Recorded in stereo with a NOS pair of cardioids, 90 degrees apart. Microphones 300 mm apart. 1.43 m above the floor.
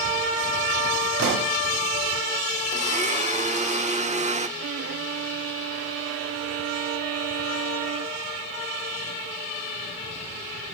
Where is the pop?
65° right, 3 m.